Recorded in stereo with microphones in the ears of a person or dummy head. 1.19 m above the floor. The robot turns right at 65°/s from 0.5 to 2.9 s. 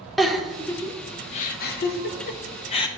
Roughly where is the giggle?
Centre.